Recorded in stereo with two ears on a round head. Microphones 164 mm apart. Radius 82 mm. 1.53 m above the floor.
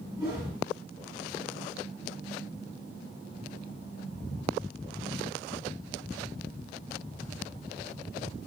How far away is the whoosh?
About 2 m.